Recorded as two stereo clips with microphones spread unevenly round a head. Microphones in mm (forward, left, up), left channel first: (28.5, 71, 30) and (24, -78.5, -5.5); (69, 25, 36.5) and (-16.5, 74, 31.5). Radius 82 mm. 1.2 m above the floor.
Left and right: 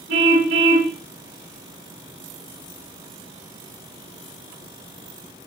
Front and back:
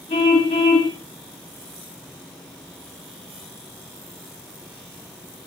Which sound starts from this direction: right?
A car horn, at 0.1 s.